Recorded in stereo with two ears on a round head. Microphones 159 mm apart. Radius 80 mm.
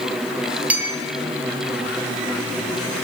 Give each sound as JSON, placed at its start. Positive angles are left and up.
{"t": 0.7, "sound": "a clink", "side_deg": -10, "distance_m": 2.0}